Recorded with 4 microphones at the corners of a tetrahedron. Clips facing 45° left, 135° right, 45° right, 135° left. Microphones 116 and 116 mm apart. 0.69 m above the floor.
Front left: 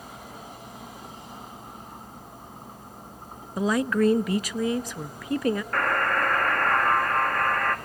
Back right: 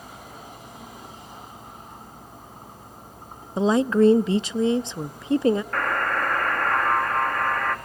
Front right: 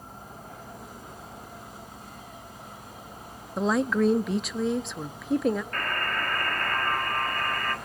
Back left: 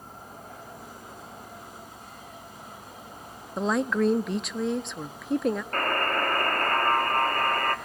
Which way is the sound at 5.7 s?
135° left.